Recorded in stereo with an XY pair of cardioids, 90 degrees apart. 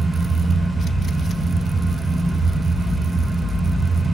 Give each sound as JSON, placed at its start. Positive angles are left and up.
{"t": 0.0, "sound": "a fan", "azimuth_deg": -5, "distance_m": 1.3}